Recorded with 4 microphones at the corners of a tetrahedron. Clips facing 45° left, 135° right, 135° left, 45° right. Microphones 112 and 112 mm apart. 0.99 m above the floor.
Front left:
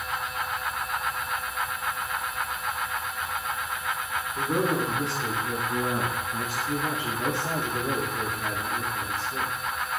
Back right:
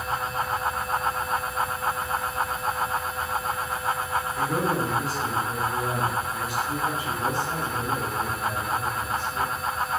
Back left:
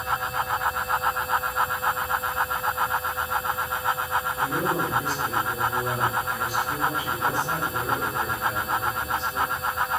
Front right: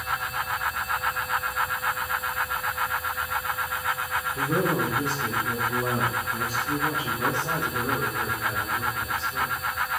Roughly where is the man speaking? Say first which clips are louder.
Front left 2 dB, front right 4 dB; ahead right.